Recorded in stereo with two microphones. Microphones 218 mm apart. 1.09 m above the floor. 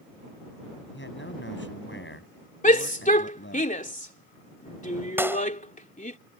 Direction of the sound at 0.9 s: 60° left (ahead or behind).